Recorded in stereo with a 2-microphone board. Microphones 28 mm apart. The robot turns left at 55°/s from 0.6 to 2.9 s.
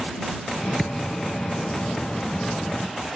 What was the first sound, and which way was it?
A thud, 15° left (ahead or behind).